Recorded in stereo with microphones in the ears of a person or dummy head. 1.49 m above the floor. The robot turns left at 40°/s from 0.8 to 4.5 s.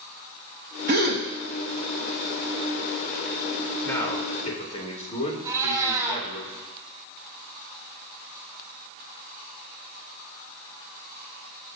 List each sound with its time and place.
0.9 s a gasp: 50° right (ahead or behind), 1.2 m; by 1.2 s 45° right (ahead or behind), 1.2 m
3.8 s a man speaking: 10° left (ahead or behind), 2 m; by 6.4 s 40° left (ahead or behind), 2 m
5.4 s a cat meowing: 20° right (ahead or behind), 4 m